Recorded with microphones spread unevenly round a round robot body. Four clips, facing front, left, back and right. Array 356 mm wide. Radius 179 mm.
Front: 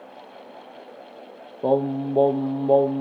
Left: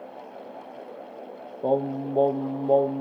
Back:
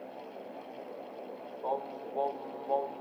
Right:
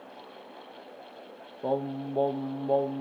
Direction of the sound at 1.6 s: 15° left.